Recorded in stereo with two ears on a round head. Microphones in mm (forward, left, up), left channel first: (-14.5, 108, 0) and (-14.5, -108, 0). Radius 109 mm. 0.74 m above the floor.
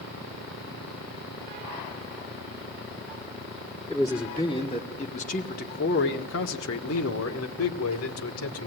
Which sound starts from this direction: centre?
A man speaking, at 3.9 s.